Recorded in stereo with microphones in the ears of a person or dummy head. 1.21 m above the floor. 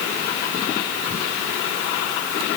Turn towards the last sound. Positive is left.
No sound to turn to.